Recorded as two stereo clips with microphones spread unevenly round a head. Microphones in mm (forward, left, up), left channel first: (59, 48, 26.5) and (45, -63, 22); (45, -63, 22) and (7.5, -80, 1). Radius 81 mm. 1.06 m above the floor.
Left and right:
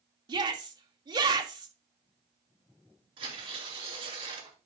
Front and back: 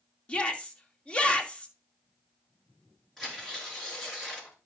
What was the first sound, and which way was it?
A shout, 50° right.